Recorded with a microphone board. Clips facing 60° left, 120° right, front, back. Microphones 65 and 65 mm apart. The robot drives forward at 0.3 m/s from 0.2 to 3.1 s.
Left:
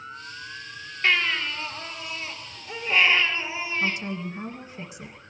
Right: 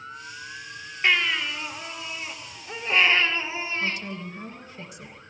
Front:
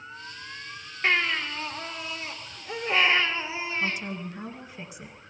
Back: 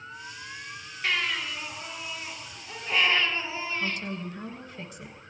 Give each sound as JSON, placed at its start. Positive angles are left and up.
{"t": 1.0, "sound": "a baby crying", "azimuth_deg": -50, "distance_m": 2.5}
{"t": 3.8, "sound": "a woman speaking", "azimuth_deg": 65, "distance_m": 1.3}